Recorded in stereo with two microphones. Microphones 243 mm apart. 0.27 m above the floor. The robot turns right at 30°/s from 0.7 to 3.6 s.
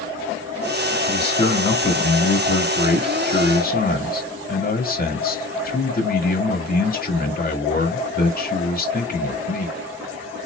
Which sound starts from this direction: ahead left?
A man speaking, at 1.0 s.